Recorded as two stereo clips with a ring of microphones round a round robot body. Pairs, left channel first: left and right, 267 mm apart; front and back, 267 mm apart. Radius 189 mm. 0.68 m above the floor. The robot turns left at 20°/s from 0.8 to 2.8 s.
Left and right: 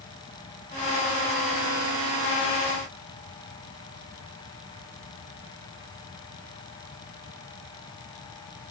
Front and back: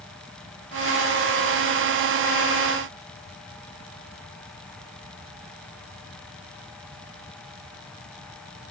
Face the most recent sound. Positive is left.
No sound to turn to.